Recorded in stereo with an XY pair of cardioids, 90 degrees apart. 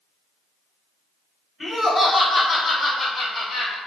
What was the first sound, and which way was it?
Laughter, 25° left.